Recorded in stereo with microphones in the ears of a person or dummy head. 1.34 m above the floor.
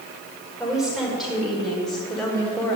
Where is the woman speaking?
5° right (ahead or behind), 6 m; by 2.8 s 10° left (ahead or behind), 4.5 m.